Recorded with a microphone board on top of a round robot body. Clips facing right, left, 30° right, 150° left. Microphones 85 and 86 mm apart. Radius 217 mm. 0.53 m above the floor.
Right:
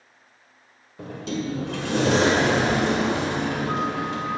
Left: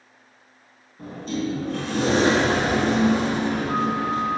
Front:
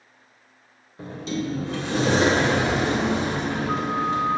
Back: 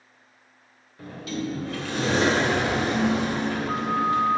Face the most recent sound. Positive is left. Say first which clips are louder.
# left 1 dB, front 2 dB
turn(degrees=-95)